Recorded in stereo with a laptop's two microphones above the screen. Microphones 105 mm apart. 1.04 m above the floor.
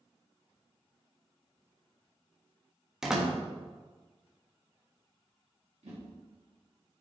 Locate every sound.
3.0 s a door slam: 5° right (ahead or behind), 1.1 m
5.8 s a whoosh: 75° right (ahead or behind), 2 m